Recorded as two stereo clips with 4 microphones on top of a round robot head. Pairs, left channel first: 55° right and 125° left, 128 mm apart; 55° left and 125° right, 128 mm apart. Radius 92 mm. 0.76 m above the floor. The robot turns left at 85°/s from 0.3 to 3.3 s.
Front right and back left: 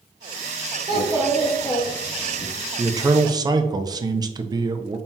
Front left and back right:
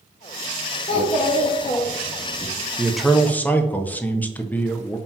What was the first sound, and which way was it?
A child speaking, 85° left.